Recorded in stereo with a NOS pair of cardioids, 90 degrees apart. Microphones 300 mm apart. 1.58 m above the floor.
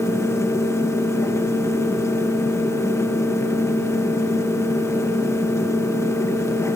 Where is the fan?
10° left, 2 m.